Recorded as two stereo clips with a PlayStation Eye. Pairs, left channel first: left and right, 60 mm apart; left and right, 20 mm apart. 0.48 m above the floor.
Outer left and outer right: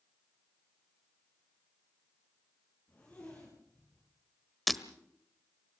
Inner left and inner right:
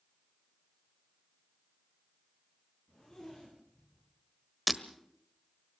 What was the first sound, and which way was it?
A zipper, 30° left (ahead or behind).